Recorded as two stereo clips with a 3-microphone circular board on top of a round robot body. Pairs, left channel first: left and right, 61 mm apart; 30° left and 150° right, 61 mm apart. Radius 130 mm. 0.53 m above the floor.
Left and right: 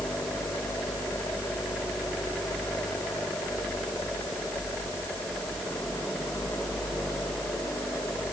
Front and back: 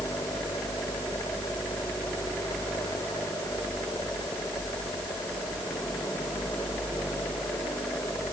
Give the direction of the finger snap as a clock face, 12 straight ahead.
I don't hear a finger snap.